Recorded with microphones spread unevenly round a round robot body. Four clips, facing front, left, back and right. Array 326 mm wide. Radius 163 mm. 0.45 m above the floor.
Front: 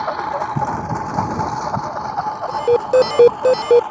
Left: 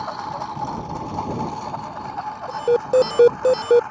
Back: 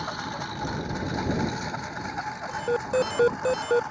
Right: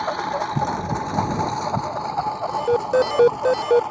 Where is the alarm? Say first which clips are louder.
Left 3 dB, front 12 dB; 15° left.